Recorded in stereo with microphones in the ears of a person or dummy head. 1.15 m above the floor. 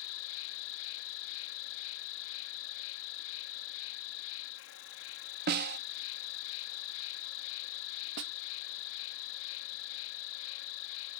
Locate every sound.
0.0 s an insect: 80° left
5.5 s a snare drum: 50° right (ahead or behind)
8.2 s a snare drum: 65° right (ahead or behind)